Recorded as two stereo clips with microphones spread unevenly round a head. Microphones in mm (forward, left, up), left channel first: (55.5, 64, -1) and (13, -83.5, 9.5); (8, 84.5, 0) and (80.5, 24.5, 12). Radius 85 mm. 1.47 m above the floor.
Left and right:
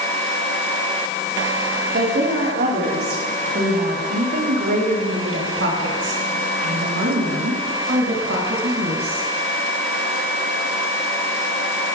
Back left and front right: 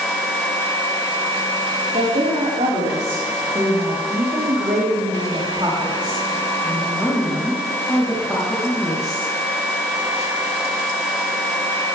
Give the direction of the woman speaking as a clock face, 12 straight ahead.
3 o'clock.